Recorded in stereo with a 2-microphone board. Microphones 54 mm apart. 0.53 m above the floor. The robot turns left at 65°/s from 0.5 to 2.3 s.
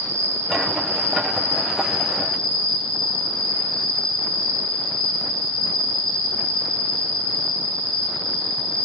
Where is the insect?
80° right, 1.3 m; by 8.8 s 165° left, 1.3 m.